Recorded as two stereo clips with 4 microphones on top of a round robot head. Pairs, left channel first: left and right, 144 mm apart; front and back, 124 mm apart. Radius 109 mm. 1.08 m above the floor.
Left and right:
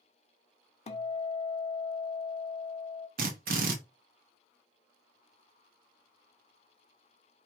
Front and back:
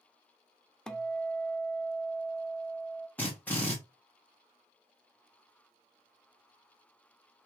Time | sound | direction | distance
0.9 | a guitar | 80° left | 0.6 m
3.2 | a drill | 85° right | 0.7 m